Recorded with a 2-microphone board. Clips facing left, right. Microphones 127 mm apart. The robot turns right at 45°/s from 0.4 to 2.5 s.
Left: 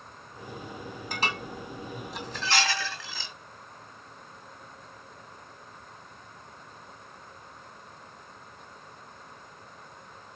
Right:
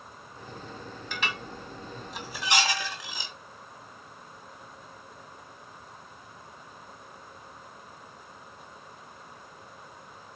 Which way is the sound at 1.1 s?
45° left (ahead or behind).